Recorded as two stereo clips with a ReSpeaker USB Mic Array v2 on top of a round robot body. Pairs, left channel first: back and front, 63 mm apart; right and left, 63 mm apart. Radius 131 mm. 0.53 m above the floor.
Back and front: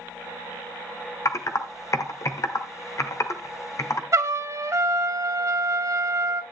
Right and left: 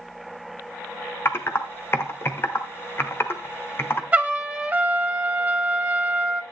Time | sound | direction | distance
1.2 | typing on a keyboard | 140° right | 1.3 m
4.1 | a trumpet | 25° left | 2 m